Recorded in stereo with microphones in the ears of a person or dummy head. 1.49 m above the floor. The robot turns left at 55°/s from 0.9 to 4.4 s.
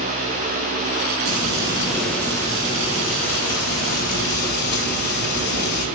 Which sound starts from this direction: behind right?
Frying, at 1.2 s.